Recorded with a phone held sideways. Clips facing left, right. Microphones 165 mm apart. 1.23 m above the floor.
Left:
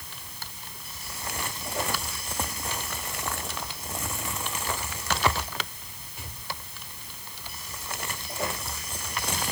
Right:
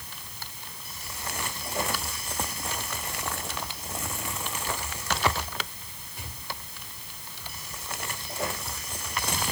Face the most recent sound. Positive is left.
No sound to turn to.